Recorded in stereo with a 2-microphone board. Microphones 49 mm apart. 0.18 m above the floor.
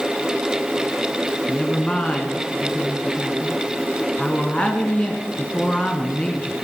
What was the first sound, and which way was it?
A woman speaking, 25° left (ahead or behind).